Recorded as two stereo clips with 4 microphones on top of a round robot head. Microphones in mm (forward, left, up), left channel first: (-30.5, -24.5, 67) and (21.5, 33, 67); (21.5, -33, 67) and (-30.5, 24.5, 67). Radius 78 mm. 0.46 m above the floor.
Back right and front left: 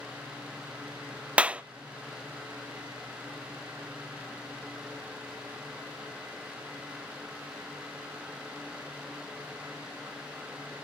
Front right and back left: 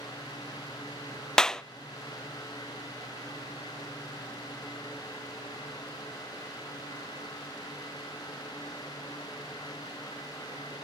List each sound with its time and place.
1.4 s a clap: 15° left, 0.5 m